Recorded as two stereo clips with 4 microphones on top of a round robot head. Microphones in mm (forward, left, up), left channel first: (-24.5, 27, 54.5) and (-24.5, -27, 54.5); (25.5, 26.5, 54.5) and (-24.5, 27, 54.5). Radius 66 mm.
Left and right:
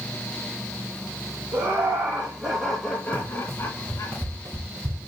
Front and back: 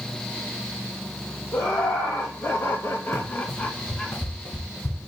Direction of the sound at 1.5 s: 40° right.